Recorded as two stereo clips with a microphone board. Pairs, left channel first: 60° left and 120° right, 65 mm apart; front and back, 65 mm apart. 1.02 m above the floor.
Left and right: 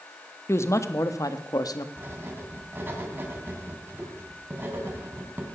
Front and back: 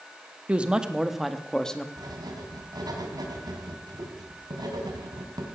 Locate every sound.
0.5 s a woman speaking: 110° left, 1.3 m; by 1.9 s 80° left, 1.4 m
2.0 s writing: 175° right, 3.5 m